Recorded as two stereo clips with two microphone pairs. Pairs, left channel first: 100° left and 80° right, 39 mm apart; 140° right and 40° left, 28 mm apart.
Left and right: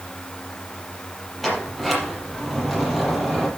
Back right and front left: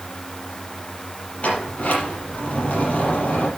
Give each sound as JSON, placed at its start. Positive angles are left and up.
{"t": 1.4, "sound": "a sliding door", "azimuth_deg": -170, "distance_m": 5.0}